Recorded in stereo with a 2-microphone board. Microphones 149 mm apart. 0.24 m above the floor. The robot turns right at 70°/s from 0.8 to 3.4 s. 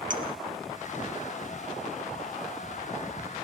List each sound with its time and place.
0.1 s a clink: 65° right (ahead or behind), 4 m